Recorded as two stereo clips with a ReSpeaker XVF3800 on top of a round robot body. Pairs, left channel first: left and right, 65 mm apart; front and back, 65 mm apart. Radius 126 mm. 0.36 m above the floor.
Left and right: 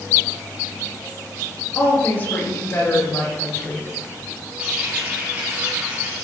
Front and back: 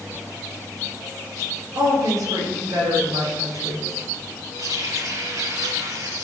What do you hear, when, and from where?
1.8 s a woman speaking: 155° left, 7 m; by 3.9 s 145° left, 8 m
4.6 s a running tap: 160° right, 7.5 m